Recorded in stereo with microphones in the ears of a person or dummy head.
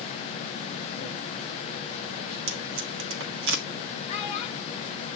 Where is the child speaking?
30° left (ahead or behind), 1.1 m.